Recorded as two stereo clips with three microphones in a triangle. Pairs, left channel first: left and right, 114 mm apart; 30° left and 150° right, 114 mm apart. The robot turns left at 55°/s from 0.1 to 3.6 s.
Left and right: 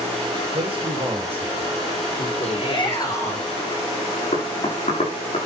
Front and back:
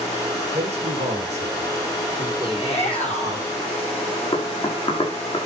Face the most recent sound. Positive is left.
turn(degrees=70)